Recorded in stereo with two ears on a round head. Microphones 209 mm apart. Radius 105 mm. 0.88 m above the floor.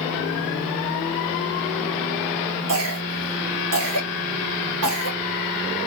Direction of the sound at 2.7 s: 70° right (ahead or behind).